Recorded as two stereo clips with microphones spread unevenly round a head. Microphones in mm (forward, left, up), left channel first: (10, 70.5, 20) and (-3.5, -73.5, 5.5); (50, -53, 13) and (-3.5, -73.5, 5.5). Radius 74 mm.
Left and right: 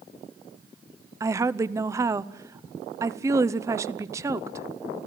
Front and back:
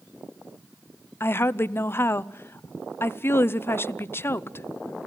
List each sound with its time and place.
1.2 s a woman speaking: 30° right, 0.7 m